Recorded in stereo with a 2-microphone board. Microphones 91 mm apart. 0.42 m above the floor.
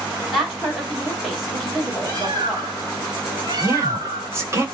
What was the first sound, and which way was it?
A woman speaking, centre (ahead or behind).